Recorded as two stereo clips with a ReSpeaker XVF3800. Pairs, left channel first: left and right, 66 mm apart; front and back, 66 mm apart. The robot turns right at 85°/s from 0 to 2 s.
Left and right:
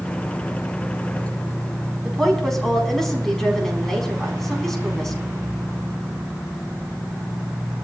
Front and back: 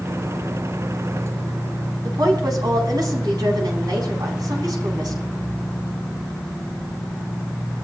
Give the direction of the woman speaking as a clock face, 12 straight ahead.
6 o'clock.